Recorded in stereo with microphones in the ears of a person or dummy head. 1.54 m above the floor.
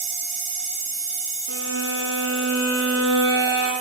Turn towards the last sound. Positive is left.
turn(degrees=-55)  # may be behind; listen again after turning